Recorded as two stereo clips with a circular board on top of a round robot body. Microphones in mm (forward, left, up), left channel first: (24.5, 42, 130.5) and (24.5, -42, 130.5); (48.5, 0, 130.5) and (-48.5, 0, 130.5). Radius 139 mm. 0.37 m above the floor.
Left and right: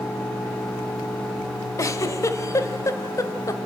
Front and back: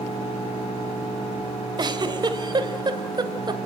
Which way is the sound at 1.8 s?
140° left.